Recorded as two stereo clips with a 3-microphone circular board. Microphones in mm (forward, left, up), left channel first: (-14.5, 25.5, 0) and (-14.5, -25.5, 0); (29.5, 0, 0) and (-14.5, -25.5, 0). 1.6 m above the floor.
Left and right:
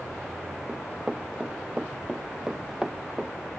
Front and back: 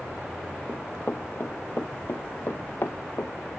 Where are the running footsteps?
15° right; by 3.3 s 10° right.